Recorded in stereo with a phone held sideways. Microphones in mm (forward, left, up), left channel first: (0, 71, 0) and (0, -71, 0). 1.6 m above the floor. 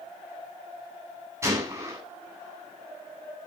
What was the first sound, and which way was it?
A gunshot, 20° right (ahead or behind).